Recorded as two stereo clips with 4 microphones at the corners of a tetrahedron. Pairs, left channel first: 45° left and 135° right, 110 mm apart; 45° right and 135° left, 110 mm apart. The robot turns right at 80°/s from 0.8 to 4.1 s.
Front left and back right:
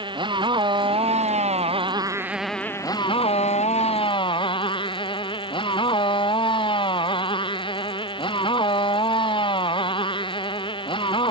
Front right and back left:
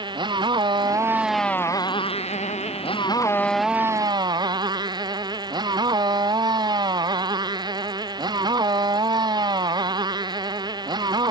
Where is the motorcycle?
Straight behind; by 11.3 s 85° left.